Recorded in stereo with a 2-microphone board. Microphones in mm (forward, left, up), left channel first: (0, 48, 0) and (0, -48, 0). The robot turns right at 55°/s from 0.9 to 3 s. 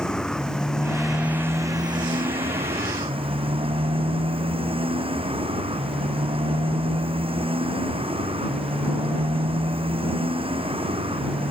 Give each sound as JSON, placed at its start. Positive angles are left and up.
{"t": 0.0, "sound": "a motorcycle", "azimuth_deg": 175}